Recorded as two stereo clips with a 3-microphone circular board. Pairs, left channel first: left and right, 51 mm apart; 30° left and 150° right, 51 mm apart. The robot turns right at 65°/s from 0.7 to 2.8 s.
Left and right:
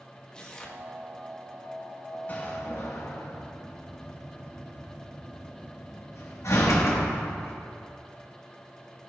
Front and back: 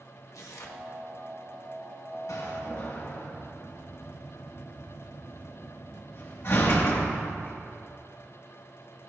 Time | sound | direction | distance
0.3 | tearing paper | 15° left | 1.3 m
2.3 | a door slam | 35° left | 1.5 m